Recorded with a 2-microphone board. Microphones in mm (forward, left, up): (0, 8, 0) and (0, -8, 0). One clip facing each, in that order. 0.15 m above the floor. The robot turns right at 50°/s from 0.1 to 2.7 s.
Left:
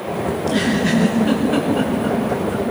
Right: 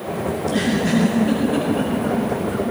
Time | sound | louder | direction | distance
0.3 | a giggle | left 1 dB | 75° left (ahead or behind) | 9 m